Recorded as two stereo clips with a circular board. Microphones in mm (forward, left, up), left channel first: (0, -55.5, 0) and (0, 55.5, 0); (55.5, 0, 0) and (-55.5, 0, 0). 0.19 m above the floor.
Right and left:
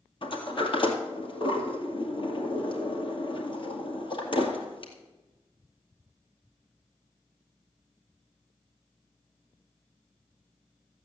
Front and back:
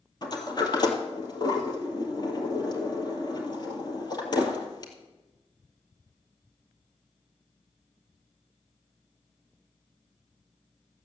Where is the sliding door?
50° right, 2 m.